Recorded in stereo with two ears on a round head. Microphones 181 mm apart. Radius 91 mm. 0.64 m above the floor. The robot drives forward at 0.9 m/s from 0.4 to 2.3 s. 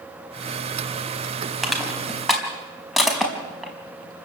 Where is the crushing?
Centre (ahead or behind), 4 m.